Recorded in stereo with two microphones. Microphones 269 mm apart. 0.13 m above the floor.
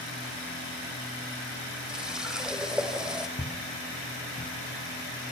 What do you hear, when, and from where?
1.9 s a running tap: centre (ahead or behind), 3.5 m
3.4 s footsteps: 25° left (ahead or behind), 7 m